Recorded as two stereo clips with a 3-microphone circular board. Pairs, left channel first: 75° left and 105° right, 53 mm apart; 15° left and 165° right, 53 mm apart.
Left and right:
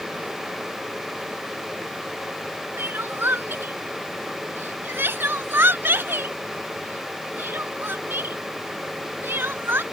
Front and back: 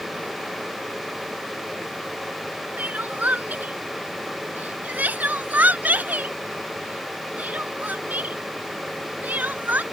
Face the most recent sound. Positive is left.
turn(degrees=-125)